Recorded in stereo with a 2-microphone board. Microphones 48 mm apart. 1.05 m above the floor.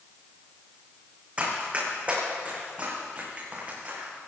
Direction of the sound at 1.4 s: 25° right (ahead or behind).